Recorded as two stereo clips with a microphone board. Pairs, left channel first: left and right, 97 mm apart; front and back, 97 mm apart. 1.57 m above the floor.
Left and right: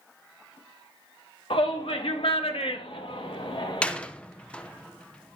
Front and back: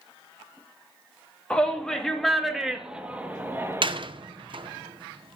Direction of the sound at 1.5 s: 80° left.